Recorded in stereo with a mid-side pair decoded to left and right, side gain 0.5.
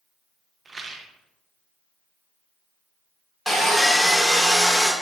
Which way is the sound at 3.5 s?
Straight ahead.